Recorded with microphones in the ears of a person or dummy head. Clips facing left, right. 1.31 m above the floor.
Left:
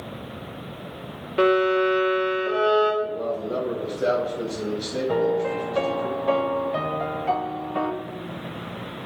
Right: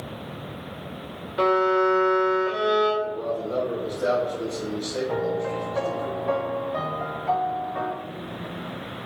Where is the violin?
35° left (ahead or behind), 1.8 m.